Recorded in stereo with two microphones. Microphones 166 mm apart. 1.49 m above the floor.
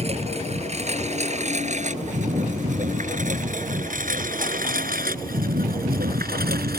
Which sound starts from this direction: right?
A lawn mower, at 0.0 s.